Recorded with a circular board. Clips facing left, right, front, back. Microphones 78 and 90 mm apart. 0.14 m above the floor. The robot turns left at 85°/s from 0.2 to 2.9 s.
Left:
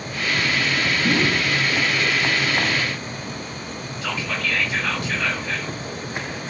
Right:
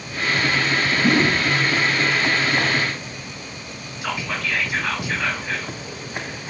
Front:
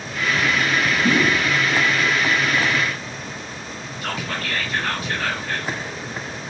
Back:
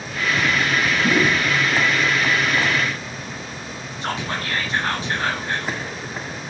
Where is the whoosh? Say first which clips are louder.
Right 3 dB, even; 105° right, 2.5 m; by 1.4 s 135° right, 2.5 m.